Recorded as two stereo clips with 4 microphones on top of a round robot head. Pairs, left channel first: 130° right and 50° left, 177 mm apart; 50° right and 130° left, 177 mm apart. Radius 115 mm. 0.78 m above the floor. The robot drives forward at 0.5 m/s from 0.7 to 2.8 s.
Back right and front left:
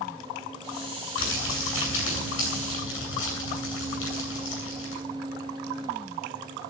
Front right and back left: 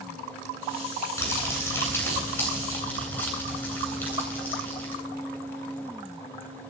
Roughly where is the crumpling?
Behind right.